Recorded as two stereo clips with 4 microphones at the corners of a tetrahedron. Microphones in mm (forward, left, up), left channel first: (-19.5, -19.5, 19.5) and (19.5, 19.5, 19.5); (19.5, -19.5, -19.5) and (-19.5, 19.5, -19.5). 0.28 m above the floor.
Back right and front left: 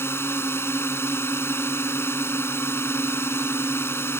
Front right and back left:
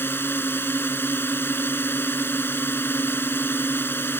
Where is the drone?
95° right.